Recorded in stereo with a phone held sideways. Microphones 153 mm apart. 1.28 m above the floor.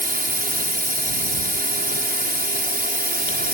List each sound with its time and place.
0.0 s a drone: 70° right (ahead or behind)